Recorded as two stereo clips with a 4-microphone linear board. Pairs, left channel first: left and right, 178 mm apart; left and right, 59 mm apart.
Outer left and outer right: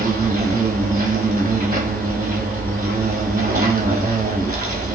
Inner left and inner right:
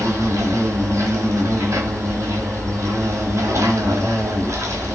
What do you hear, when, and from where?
0.0 s an insect: 55° right (ahead or behind), 0.9 m